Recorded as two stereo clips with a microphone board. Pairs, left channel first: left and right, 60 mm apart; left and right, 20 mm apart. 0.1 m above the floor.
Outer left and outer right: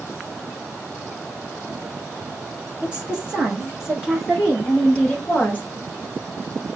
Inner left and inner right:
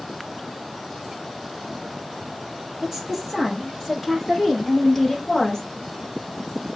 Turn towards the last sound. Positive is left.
turn(degrees=20)  # may be behind; listen again after turning